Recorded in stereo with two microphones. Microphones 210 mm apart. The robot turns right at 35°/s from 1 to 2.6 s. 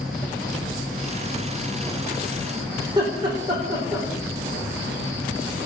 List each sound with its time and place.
0.0 s an insect: 140° left, 5 m; by 5.7 s 165° right, 5 m
2.8 s laughter: 20° right (ahead or behind), 6.5 m